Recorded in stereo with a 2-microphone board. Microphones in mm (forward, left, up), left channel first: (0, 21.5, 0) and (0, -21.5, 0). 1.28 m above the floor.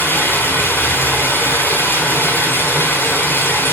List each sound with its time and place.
0.0 s running water: 50° left (ahead or behind), 4.5 m